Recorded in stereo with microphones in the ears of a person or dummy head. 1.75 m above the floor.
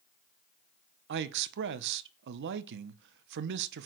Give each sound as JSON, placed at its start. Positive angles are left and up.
{"t": 1.1, "sound": "a man speaking", "side_deg": -65, "distance_m": 0.8}